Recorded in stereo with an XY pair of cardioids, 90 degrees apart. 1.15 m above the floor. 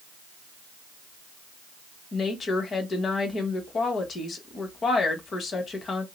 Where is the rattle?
I don't hear a rattle.